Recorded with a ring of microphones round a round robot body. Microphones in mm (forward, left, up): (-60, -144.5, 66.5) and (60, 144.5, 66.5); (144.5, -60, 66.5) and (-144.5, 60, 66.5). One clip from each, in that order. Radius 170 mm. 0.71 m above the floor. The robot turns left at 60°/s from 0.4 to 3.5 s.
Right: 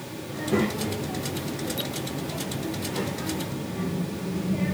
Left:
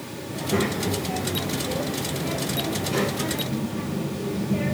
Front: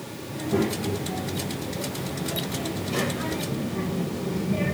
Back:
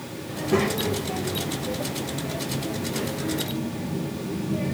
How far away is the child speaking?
About 2 m.